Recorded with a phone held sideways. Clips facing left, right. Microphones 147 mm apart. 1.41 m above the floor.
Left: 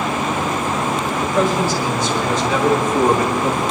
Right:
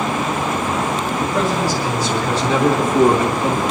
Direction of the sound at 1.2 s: 40° right (ahead or behind).